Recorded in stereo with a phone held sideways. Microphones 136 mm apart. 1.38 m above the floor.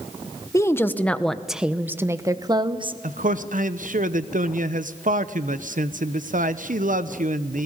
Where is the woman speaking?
20° left (ahead or behind), 1.2 m; by 2.9 s 40° right (ahead or behind), 1.2 m.